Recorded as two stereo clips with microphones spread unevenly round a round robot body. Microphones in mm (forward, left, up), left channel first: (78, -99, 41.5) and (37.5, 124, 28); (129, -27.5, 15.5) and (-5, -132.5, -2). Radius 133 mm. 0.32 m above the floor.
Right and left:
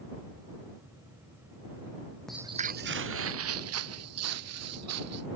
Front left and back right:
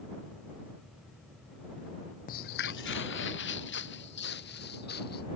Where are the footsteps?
5° left; by 5.3 s 95° left.